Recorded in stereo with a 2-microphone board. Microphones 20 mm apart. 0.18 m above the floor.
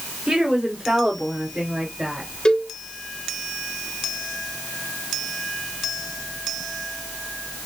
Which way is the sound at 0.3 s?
40° right (ahead or behind).